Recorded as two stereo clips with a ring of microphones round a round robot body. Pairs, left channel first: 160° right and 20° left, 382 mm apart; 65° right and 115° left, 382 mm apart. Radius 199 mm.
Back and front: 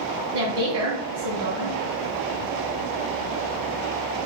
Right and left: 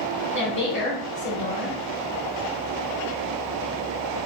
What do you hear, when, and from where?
0.3 s a woman speaking: 15° right, 1.3 m